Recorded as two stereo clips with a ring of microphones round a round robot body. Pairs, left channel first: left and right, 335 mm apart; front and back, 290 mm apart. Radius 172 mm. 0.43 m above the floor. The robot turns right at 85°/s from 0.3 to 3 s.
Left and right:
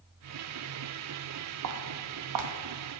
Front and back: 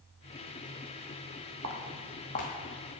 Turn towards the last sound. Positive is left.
turn(degrees=-15)